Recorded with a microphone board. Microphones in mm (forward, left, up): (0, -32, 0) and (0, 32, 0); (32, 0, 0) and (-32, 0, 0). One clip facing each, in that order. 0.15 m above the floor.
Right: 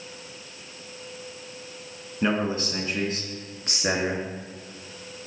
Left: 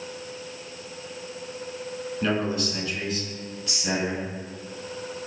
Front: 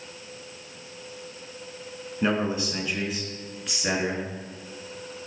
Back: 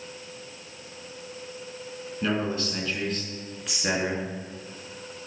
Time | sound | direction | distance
2.2 | a man speaking | 40° right | 1.8 m